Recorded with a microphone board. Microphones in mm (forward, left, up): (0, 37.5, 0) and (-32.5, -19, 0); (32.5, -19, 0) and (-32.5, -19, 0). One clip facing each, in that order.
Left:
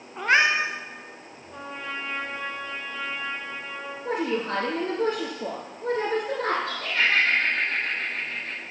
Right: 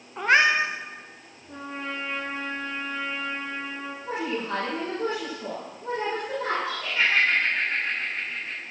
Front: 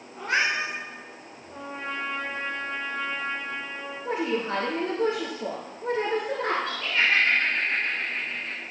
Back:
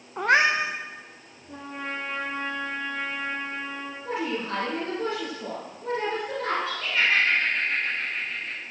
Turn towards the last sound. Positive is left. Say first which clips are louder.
# left 1 dB, even
turn(degrees=90)